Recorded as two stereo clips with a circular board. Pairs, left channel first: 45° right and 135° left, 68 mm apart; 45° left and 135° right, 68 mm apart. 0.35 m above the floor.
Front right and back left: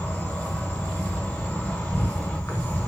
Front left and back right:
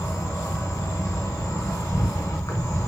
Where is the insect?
20° left, 1.3 m.